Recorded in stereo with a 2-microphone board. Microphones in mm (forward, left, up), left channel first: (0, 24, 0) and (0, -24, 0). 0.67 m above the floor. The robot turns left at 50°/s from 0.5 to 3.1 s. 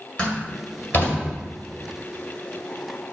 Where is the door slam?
20° left (ahead or behind), 1.9 m; by 1.2 s 55° left (ahead or behind), 1.9 m.